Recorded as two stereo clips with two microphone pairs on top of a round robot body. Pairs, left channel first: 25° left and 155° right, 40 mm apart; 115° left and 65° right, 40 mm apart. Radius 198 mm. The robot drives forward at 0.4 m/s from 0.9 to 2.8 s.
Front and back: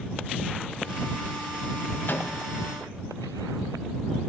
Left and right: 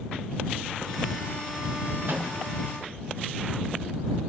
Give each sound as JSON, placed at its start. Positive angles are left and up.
{"t": 2.1, "sound": "a microwave", "azimuth_deg": -15, "distance_m": 3.5}